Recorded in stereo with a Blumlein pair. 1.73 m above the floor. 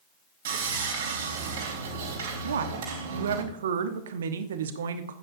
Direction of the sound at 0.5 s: 60° right.